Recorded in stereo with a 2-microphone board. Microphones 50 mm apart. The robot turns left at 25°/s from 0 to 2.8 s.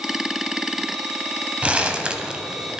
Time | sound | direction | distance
1.6 | crumpling | 25° right (ahead or behind) | 0.6 m